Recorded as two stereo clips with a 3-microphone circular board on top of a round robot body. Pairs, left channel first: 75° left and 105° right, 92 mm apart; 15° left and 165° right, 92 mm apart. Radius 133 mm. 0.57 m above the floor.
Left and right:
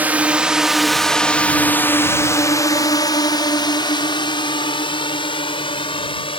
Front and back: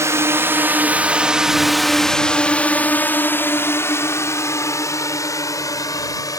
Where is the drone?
160° right; by 6.4 s 60° left.